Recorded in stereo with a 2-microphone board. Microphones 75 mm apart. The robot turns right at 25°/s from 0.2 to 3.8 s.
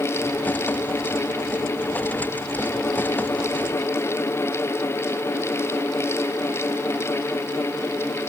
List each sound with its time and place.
Only background noise.